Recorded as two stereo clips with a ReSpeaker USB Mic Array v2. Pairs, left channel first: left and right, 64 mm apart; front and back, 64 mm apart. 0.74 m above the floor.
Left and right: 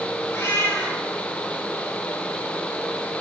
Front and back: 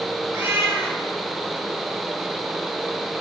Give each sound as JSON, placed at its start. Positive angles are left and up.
{"t": 0.3, "sound": "a cat meowing", "azimuth_deg": 140, "distance_m": 5.5}